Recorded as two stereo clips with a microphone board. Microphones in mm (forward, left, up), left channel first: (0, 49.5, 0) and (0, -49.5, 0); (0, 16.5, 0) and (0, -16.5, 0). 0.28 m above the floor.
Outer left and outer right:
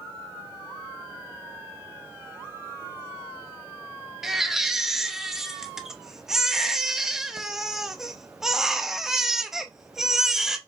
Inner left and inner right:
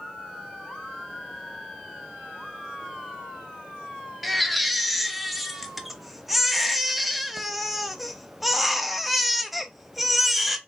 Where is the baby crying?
5° right (ahead or behind), 0.7 m.